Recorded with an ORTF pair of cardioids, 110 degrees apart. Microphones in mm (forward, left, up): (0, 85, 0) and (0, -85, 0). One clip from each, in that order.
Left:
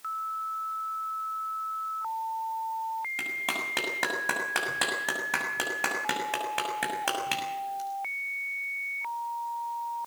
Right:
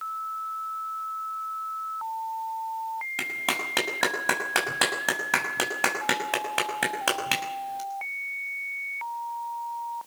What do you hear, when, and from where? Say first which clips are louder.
3.2 s a clap: right 5 dB; 30° right, 6 m